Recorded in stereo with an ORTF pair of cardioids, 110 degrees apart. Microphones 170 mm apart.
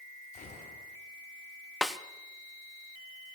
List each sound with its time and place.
0.3 s a gunshot: 50° left, 4 m
1.8 s a snare drum: straight ahead, 0.8 m